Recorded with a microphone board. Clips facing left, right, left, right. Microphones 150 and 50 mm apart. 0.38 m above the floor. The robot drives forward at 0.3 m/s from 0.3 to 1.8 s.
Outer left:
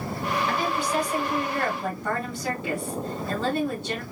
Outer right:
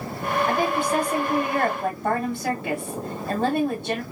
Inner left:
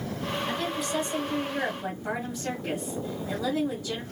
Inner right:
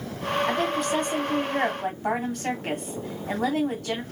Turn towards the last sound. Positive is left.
turn(degrees=-55)  # may be behind; listen again after turning